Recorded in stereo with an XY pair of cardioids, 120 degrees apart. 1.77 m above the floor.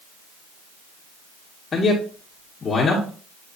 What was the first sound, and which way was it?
A man speaking, 30° left.